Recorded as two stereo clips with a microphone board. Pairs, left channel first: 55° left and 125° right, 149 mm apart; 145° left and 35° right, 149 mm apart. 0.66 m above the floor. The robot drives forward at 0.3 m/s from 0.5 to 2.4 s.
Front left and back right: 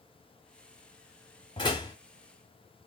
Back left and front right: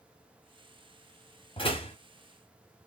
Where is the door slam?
105° left, 1.0 m; by 1.9 s 110° left, 1.0 m.